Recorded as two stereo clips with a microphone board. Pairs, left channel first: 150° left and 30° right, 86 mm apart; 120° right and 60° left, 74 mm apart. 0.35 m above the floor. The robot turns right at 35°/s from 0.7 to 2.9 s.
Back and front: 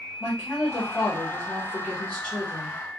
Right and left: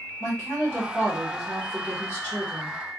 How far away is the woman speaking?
About 1.3 m.